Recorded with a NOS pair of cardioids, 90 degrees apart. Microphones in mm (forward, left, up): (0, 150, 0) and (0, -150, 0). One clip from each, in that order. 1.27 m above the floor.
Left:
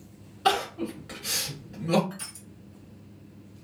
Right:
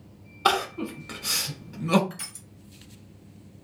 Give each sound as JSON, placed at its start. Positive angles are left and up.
{"t": 0.5, "sound": "crying", "azimuth_deg": -35, "distance_m": 1.2}
{"t": 2.1, "sound": "crushing", "azimuth_deg": -40, "distance_m": 1.3}